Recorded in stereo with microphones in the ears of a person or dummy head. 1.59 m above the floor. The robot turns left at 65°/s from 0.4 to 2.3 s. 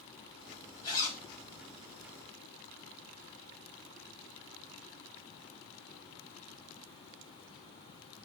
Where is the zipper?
30° left (ahead or behind), 4 m; by 1.2 s 5° left (ahead or behind), 4 m.